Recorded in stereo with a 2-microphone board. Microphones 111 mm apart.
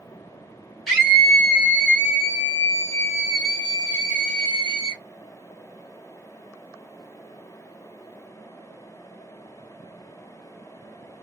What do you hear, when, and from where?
0.9 s a scream: centre (ahead or behind), 2 m; by 5.0 s 45° left (ahead or behind), 2 m